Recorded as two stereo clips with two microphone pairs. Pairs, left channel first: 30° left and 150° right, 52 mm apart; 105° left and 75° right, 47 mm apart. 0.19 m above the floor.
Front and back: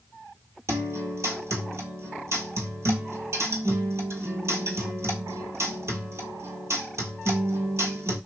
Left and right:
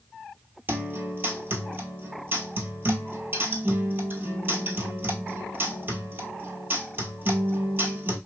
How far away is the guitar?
About 1.0 m.